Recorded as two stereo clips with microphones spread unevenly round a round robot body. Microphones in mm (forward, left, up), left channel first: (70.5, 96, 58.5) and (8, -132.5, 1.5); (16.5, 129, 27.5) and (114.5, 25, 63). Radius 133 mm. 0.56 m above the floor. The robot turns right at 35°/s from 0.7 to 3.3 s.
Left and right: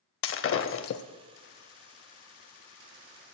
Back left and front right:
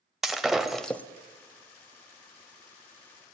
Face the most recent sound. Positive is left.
turn(degrees=130)